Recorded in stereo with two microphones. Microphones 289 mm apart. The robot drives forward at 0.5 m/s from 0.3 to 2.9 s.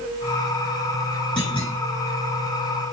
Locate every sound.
1.4 s a clunk: 45° left (ahead or behind), 3 m